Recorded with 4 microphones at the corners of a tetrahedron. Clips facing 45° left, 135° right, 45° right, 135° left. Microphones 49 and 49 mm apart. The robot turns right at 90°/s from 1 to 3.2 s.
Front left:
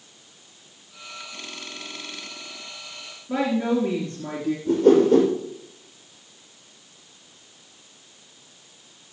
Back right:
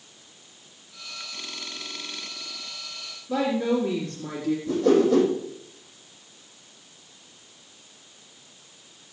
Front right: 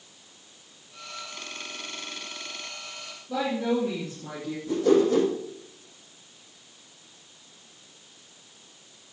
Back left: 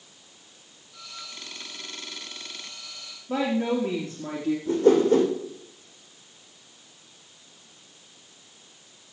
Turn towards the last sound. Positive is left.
turn(degrees=85)